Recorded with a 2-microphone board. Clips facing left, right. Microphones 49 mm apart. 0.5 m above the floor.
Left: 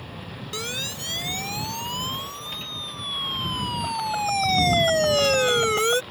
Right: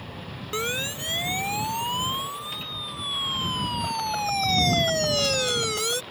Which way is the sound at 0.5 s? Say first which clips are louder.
Right 4 dB; 25° right (ahead or behind).